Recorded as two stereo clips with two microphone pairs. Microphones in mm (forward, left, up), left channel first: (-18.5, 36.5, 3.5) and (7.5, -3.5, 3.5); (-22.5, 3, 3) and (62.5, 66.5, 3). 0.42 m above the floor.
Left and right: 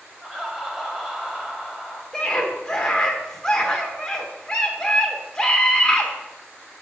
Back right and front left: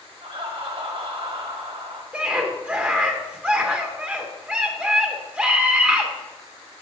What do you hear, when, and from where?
0.2 s laughter: 25° left, 2 m
2.1 s a scream: 80° left, 0.8 m